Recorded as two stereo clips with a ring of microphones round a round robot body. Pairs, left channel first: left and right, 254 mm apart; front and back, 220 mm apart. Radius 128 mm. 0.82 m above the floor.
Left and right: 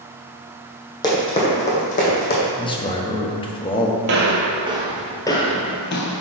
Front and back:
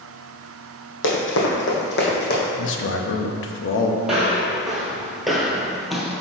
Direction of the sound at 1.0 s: 15° left.